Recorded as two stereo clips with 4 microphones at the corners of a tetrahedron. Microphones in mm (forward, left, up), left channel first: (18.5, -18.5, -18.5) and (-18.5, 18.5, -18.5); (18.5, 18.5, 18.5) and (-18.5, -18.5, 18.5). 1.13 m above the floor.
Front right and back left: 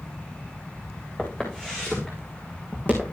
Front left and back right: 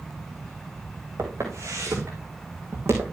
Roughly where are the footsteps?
Behind right.